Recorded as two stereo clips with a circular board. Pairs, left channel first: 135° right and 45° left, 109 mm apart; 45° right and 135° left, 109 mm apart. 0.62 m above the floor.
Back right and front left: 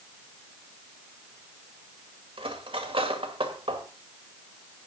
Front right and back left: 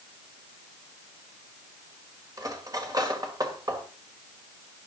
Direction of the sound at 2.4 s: 80° left.